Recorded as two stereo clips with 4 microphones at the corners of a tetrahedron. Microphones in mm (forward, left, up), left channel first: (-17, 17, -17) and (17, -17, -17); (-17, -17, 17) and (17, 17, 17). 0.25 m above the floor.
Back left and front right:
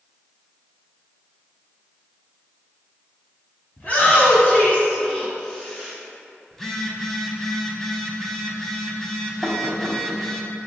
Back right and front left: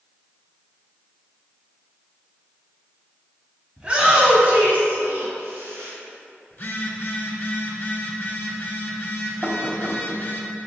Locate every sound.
3.8 s a shout: 105° left, 1.4 m; by 5.9 s 60° left, 2 m
6.5 s a phone buzzing: 145° right, 0.8 m
9.4 s knocking: 70° left, 0.8 m